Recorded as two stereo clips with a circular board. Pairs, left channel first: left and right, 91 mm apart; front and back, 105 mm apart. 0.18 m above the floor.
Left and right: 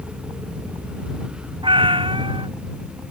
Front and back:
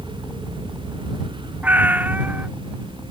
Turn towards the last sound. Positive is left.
turn(degrees=-105)